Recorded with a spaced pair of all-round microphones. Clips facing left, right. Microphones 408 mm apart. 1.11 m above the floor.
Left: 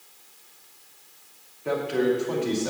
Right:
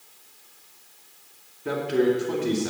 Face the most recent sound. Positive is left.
turn(degrees=-30)  # may be behind; listen again after turning